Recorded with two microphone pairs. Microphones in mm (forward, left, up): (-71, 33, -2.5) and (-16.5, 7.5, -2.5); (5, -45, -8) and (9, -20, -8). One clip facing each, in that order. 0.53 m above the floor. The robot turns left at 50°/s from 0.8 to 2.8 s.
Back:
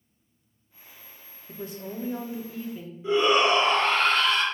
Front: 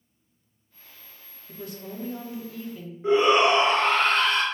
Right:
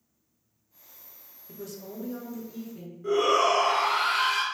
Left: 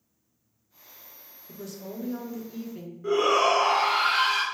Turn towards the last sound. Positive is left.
turn(degrees=10)